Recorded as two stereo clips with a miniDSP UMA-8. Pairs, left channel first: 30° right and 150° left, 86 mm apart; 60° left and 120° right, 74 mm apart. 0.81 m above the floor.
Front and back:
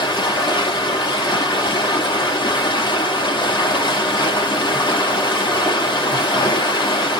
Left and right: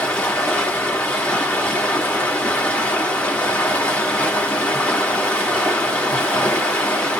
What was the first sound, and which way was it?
Running water, 10° right.